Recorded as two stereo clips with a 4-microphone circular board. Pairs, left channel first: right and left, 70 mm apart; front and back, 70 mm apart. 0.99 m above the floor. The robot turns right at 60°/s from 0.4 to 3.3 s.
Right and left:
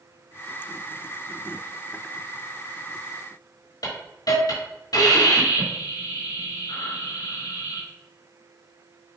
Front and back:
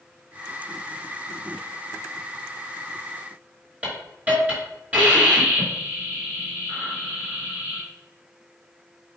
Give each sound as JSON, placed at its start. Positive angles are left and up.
{"t": 3.8, "sound": "a hiss", "azimuth_deg": -115, "distance_m": 3.5}